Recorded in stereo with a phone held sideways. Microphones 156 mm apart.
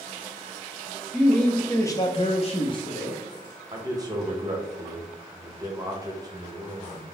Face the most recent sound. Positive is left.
turn(degrees=-25)  # may be behind; listen again after turning